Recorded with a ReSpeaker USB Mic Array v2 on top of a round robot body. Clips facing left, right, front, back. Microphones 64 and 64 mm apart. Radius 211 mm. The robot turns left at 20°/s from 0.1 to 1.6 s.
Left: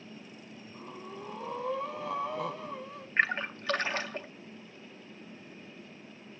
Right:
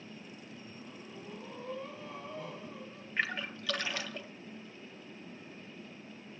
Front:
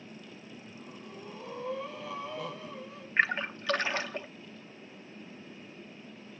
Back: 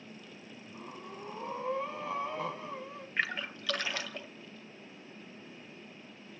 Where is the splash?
50° left, 1.5 m.